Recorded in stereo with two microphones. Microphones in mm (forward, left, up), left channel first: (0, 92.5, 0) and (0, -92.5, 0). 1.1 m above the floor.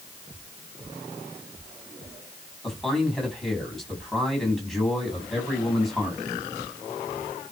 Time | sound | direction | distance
2.6 | a man speaking | centre (ahead or behind) | 7.5 m